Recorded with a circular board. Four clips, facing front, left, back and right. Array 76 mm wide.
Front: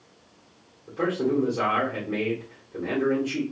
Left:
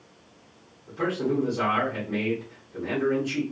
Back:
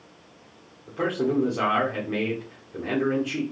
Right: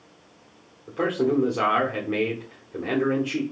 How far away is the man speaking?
About 1.0 m.